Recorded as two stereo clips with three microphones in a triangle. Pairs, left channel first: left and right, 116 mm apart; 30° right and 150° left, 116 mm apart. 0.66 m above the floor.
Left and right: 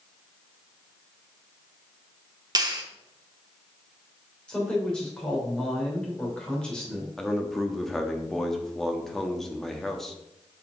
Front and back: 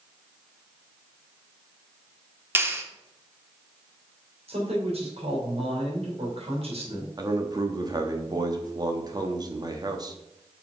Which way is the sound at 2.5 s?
140° right.